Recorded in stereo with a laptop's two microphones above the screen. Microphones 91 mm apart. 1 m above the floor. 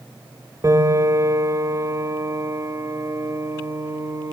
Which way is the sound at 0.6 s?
40° right (ahead or behind).